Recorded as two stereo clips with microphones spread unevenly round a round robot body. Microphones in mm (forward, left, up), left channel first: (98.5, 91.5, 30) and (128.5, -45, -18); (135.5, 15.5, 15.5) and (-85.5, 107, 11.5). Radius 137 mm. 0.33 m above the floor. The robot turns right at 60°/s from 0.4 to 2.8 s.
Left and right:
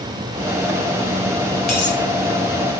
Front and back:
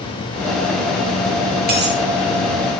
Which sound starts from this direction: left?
A dropped coin, at 1.7 s.